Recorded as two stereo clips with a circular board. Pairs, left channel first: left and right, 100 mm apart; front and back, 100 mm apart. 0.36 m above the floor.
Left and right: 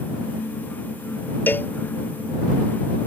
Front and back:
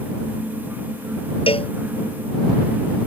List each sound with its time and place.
1.5 s a cowbell: 20° left